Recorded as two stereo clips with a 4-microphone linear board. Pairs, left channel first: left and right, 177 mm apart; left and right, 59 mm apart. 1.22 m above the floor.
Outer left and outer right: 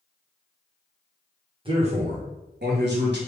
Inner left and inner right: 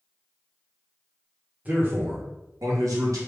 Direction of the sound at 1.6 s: 30° right (ahead or behind).